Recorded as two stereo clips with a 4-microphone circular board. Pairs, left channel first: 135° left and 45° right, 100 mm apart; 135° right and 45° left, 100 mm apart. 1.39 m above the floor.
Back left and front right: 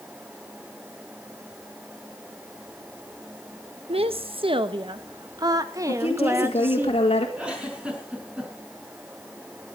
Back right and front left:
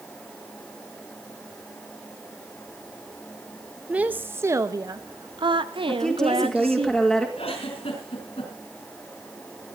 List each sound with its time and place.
3.9 s a woman speaking: 35° right, 1.2 m; by 6.9 s 25° left, 1.8 m
5.9 s a woman speaking: 140° left, 2.5 m
7.4 s a giggle: 125° right, 5.5 m